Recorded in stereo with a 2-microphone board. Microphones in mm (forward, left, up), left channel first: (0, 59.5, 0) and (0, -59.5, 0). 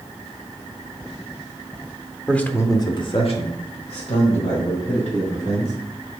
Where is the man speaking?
5° left (ahead or behind), 1.0 m; by 5.7 s 65° left (ahead or behind), 3 m.